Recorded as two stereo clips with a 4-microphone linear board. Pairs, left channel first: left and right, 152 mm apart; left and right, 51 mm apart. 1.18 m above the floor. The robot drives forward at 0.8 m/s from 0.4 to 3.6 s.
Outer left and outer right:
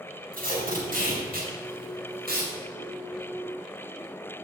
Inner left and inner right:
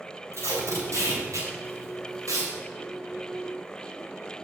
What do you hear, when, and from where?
0.3 s tape being pulled: 60° right (ahead or behind), 5 m; by 2.5 s 80° right, 4.5 m